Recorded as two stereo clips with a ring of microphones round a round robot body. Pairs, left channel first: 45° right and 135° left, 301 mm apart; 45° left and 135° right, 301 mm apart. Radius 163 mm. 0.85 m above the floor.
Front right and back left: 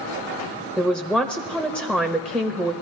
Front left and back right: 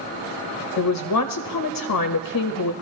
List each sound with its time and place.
0.8 s a man speaking: 50° left, 0.8 m